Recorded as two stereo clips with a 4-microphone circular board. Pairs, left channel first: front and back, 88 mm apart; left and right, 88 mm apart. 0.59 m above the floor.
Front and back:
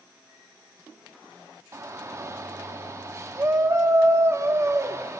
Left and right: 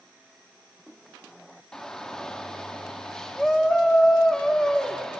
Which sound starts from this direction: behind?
A shout, at 1.7 s.